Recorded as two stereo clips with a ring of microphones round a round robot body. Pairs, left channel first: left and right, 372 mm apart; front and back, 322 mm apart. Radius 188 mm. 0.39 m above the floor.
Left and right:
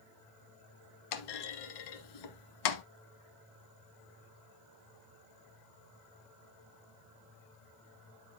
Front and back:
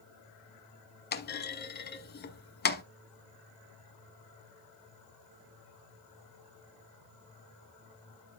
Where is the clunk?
60° left, 1.2 m.